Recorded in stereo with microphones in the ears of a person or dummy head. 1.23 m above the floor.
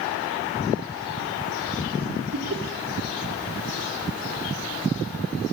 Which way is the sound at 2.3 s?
80° right.